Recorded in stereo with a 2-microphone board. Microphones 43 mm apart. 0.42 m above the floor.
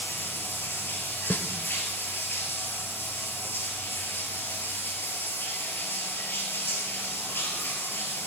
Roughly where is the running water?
Left.